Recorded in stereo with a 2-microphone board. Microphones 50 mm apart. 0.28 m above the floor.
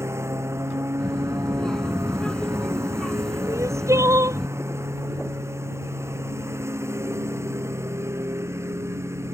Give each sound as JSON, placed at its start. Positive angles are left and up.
{"t": 0.0, "sound": "a lawn mower", "side_deg": -60}
{"t": 1.0, "sound": "a child speaking", "side_deg": 15}
{"t": 3.5, "sound": "crying", "side_deg": -75}